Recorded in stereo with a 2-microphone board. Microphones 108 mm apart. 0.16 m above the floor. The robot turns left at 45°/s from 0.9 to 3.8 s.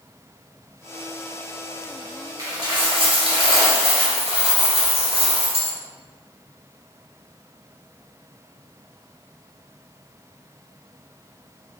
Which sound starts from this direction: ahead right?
A dropped coin, at 2.4 s.